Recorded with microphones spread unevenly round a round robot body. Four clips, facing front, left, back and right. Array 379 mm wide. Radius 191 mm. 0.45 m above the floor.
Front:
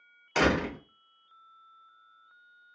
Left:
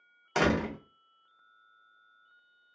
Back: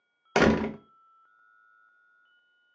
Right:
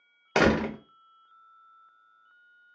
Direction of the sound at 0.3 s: 140° right.